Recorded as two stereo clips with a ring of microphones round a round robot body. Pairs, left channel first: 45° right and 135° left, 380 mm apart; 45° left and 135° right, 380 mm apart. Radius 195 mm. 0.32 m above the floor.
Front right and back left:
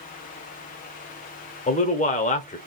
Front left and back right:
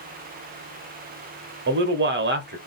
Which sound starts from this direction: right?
A man speaking, at 1.7 s.